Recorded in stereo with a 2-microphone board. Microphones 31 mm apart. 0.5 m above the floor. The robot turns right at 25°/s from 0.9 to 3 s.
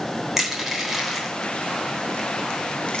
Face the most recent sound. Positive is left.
turn(degrees=35)  # may be behind; listen again after turning